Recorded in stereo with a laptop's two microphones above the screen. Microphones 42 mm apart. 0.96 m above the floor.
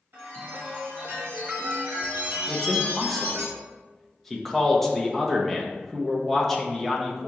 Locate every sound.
0.1 s a chime: 55° right (ahead or behind), 1.1 m
2.5 s a man speaking: 5° left (ahead or behind), 0.6 m